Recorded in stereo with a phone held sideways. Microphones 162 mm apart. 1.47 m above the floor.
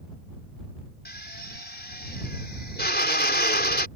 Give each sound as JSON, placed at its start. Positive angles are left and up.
{"t": 1.1, "sound": "a drill", "side_deg": 90}